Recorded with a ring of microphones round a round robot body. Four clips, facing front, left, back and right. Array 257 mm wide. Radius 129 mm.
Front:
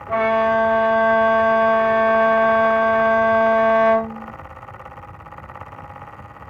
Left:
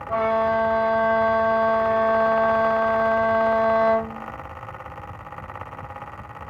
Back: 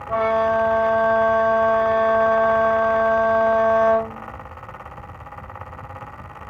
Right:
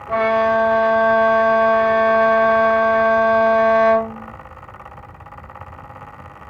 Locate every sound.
0.1 s a violin: 50° right, 0.6 m